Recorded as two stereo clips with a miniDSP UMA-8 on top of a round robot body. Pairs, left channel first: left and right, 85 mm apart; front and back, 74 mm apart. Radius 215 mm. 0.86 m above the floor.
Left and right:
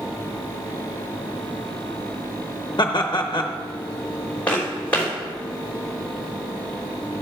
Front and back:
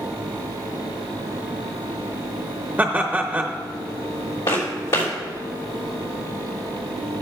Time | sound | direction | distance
2.8 | laughter | 120° left | 0.8 m
4.5 | footsteps | 15° left | 3 m